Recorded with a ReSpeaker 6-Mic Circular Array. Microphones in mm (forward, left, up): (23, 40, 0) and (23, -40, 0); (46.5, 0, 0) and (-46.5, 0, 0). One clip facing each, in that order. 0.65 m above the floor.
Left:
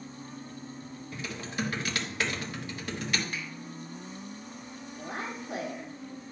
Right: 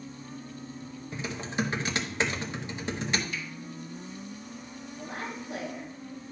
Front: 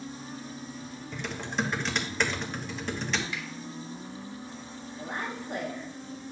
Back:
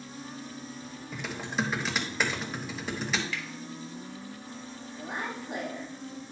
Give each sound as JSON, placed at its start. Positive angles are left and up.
{"t": 1.1, "sound": "typing on a keyboard", "azimuth_deg": -100, "distance_m": 1.1}
{"t": 3.3, "sound": "a finger snap", "azimuth_deg": 70, "distance_m": 2.0}
{"t": 5.0, "sound": "a woman speaking", "azimuth_deg": 105, "distance_m": 2.0}